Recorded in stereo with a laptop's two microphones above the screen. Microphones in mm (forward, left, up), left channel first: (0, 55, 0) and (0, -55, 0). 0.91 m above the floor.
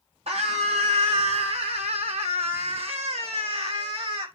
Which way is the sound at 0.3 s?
75° right (ahead or behind).